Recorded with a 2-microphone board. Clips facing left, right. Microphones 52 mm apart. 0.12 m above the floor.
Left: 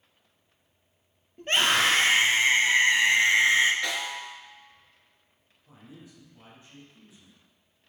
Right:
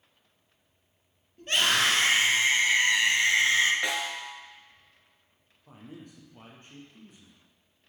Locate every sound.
1.4 s a scream: 35° left (ahead or behind), 3.5 m; by 3.7 s 25° left (ahead or behind), 2.0 m
3.8 s a snare drum: 20° right (ahead or behind), 1.7 m
5.7 s a man speaking: 55° right (ahead or behind), 3 m